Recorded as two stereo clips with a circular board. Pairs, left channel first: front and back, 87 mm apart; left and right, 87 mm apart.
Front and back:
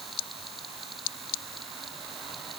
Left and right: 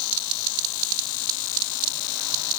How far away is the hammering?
No hammering in this recording.